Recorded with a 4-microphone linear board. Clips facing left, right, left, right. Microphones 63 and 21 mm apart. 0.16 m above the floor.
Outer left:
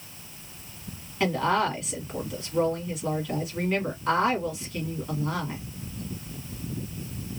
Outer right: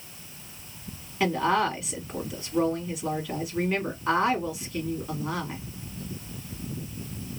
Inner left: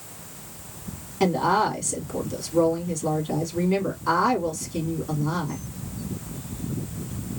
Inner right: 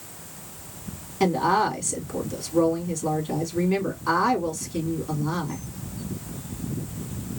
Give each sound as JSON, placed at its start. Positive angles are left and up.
{"t": 1.2, "sound": "a woman speaking", "side_deg": -5, "distance_m": 1.2}